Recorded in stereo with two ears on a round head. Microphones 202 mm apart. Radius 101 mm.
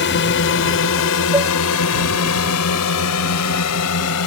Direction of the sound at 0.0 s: 50° left (ahead or behind).